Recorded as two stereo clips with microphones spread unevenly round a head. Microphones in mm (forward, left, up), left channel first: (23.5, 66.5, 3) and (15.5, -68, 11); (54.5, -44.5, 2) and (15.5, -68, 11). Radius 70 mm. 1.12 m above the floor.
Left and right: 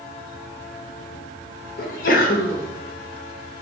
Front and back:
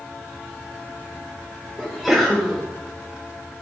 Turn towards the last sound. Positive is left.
turn(degrees=115)